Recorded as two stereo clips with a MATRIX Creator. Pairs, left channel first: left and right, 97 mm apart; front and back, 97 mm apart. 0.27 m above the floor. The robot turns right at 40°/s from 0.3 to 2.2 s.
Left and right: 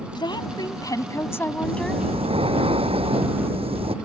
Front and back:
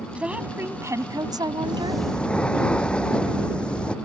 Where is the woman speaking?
105° left; by 2.0 s 175° left.